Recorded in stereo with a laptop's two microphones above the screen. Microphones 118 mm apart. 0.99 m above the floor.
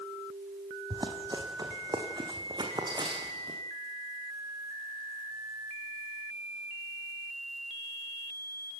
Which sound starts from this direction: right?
Running footsteps, at 0.9 s.